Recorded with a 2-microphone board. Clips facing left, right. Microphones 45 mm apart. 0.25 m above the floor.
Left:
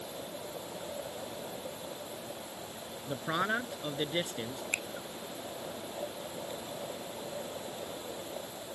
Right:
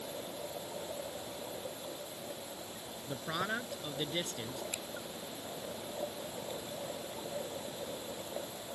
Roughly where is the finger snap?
Left.